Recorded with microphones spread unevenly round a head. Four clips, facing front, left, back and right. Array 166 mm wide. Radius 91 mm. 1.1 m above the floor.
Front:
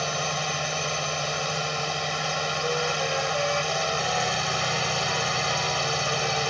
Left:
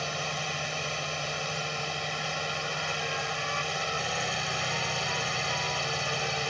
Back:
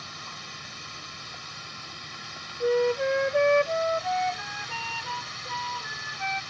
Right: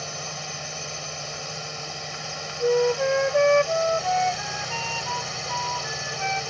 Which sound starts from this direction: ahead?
A drone, at 0.0 s.